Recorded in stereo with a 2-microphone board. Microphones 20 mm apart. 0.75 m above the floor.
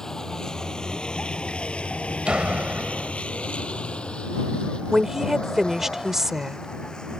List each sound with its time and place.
0.0 s a vehicle: 25° left (ahead or behind); by 7.2 s 45° left (ahead or behind)
2.2 s a door slam: 60° right (ahead or behind)
4.9 s a woman speaking: 25° right (ahead or behind)